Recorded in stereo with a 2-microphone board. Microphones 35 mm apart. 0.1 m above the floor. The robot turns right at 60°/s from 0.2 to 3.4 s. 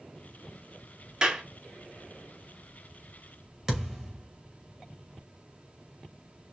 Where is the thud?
15° right (ahead or behind), 2.5 m.